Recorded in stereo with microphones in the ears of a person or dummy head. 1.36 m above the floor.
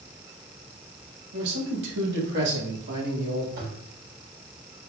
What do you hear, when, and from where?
1.3 s a man speaking: 75° right (ahead or behind), 1.2 m; by 3.5 s 65° right (ahead or behind), 2.5 m
3.6 s a toilet flushing: 65° right (ahead or behind), 2 m